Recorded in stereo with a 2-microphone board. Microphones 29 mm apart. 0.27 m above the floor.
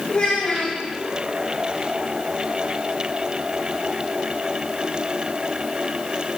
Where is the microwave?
No microwave in this recording.